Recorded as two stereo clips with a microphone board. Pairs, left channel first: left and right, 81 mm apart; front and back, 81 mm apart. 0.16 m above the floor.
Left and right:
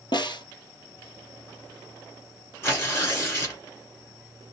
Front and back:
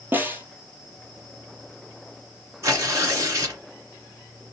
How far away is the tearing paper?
About 1.8 m.